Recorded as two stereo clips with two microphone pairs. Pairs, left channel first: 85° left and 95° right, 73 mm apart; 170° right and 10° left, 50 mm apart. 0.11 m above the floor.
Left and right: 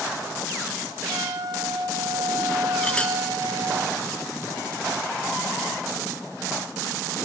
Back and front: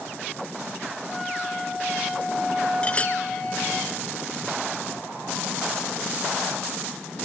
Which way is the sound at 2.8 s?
155° left.